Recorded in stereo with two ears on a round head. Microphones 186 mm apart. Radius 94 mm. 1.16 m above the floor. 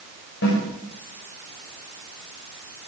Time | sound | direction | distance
0.4 | a snare drum | 60° left (ahead or behind) | 5.5 m